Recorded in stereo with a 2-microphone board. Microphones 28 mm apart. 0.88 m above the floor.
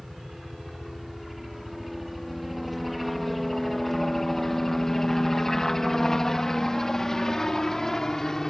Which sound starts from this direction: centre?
A helicopter, at 0.0 s.